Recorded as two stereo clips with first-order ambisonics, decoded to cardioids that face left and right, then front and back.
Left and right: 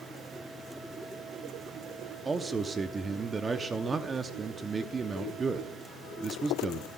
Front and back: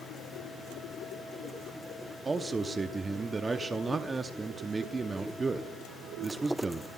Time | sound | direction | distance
2.2 | a man speaking | 130° right | 0.6 m